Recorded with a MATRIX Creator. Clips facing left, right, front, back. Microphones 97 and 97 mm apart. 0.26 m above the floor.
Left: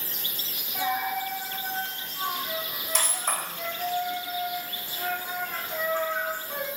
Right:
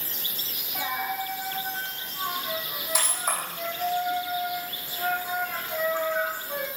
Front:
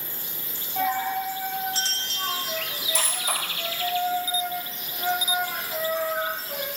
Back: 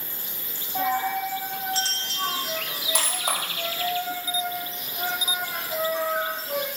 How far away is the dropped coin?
About 1.9 m.